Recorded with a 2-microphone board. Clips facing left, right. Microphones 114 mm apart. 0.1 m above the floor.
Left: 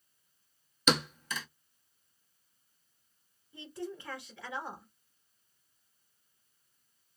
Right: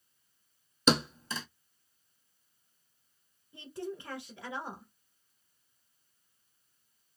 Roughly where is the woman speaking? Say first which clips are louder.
Right 1 dB; right.